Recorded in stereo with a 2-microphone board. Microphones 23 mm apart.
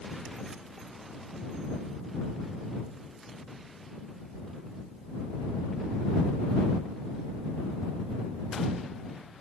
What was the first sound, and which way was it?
Only background noise.